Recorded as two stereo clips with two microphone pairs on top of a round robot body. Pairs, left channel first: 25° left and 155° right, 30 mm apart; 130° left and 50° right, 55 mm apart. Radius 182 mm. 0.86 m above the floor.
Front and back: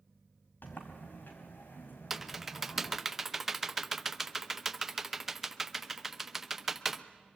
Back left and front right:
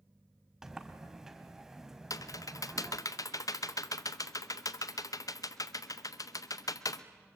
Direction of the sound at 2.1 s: 125° left.